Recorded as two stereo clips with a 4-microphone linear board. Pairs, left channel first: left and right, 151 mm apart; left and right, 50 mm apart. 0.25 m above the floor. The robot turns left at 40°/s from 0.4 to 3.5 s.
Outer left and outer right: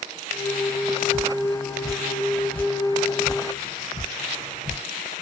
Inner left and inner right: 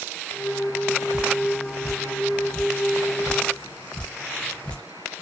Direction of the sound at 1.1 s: 20° right (ahead or behind).